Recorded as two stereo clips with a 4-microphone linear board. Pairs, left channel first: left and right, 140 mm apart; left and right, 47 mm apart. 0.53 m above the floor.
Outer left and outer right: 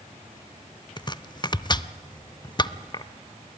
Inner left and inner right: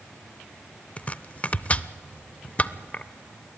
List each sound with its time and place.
1.0 s chopping: 30° left (ahead or behind), 0.6 m